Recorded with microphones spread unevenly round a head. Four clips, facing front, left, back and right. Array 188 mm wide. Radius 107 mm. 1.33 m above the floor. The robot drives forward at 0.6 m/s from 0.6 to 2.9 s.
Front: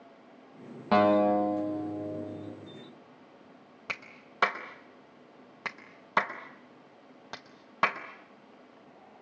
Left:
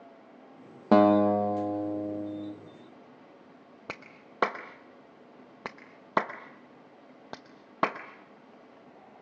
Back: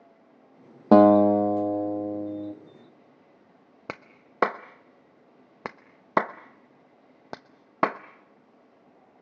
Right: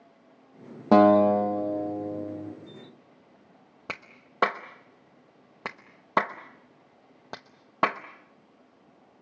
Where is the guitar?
175° right, 1.2 m; by 2.5 s straight behind, 2 m.